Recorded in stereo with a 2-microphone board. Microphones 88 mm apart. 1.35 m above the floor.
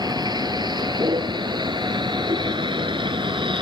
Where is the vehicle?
50° right (ahead or behind); by 3.6 s 65° right (ahead or behind).